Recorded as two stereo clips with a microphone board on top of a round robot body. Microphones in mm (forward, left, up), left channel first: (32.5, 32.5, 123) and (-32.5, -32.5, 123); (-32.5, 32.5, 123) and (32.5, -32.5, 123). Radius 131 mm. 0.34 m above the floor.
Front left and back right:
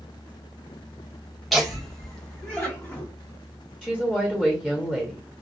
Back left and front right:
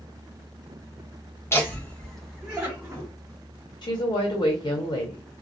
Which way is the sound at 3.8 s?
135° left.